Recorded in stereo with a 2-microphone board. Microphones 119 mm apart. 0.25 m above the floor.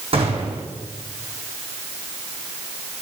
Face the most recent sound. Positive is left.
turn(degrees=-50)  # may be behind; listen again after turning